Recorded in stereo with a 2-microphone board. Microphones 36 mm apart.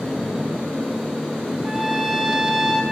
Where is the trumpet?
5° right (ahead or behind), 1.6 m.